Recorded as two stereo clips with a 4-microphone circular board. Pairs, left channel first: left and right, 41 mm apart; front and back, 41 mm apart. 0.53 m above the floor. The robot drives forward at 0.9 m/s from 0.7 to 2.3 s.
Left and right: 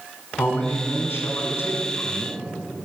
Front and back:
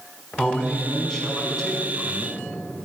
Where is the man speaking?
70° left, 4 m; by 2.5 s 90° left, 3.5 m.